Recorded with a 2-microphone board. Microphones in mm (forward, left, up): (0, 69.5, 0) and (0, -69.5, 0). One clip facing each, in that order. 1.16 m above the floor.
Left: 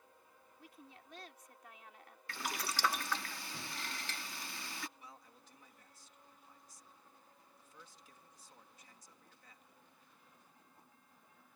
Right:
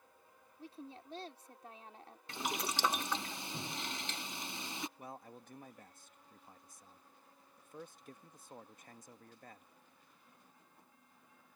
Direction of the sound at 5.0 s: 55° right (ahead or behind).